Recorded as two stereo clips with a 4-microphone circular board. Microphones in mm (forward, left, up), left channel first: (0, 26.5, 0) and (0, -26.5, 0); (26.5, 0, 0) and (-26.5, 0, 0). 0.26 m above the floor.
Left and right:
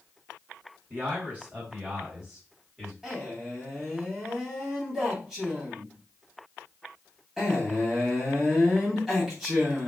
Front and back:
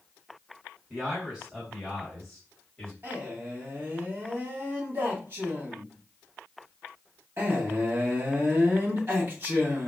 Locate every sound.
0.9 s a man speaking: 120° right, 1.7 m; by 2.9 s 10° right, 1.4 m
3.0 s a man speaking: 175° right, 1.6 m